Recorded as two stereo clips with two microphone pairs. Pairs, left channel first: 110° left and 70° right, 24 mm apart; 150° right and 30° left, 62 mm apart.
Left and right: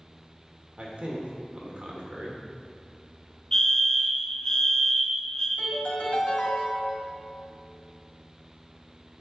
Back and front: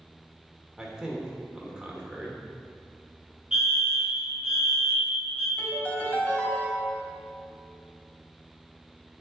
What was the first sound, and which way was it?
A man speaking, 45° right.